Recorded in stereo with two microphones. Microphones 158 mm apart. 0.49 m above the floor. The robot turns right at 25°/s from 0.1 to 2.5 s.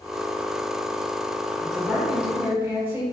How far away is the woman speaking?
About 1.0 m.